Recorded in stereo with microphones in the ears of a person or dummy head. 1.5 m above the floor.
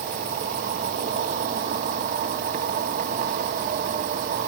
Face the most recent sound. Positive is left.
turn(degrees=-50)  # may be behind; listen again after turning